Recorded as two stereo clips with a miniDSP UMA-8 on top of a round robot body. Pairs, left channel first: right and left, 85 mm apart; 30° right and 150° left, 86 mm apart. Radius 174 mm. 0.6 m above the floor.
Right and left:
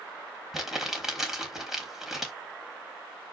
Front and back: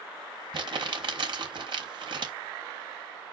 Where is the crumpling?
175° left, 4 m.